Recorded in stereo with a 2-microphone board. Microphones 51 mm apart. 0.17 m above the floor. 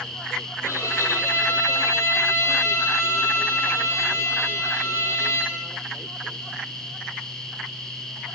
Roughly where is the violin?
Left.